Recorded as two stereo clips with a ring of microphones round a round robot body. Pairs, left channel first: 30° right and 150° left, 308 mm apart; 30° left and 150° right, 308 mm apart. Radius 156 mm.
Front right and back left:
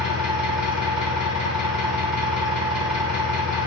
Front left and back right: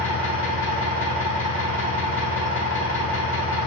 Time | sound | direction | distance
0.0 | an engine running | 95° left | 1.8 m